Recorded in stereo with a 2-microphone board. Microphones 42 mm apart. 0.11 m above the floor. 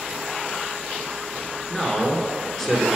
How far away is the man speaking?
About 1.2 m.